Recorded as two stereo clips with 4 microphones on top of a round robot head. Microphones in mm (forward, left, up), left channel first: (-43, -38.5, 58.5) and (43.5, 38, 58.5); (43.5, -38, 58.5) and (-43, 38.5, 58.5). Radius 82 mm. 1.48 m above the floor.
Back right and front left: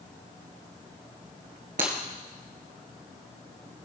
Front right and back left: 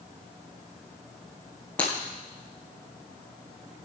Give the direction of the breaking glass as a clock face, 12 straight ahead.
11 o'clock.